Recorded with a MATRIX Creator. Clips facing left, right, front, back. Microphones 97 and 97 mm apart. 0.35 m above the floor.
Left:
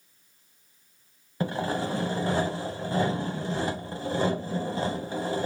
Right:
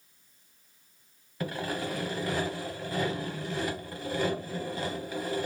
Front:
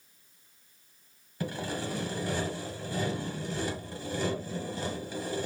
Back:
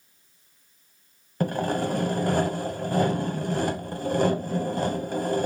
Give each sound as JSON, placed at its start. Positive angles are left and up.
{"t": 1.4, "sound": "sawing", "azimuth_deg": 150, "distance_m": 0.8}